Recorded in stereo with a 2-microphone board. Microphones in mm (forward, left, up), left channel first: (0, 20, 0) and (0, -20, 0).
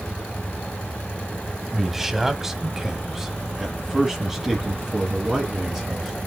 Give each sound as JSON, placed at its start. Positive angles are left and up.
{"t": 1.7, "sound": "a man speaking", "side_deg": -10, "distance_m": 1.2}